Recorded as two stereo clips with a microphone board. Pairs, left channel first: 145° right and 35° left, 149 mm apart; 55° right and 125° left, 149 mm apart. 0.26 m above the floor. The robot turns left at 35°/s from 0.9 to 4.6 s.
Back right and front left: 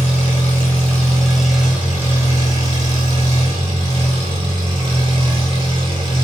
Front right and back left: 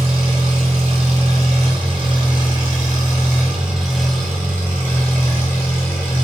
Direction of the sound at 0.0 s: 140° left.